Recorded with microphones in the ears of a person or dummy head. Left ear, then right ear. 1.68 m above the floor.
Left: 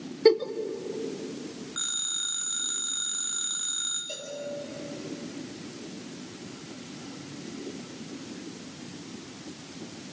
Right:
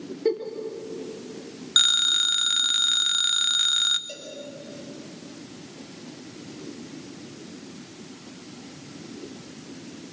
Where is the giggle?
45° left (ahead or behind), 1.5 m.